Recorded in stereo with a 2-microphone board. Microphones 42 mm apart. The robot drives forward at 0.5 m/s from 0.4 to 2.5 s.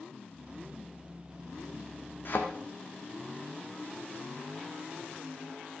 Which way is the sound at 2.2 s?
55° left (ahead or behind).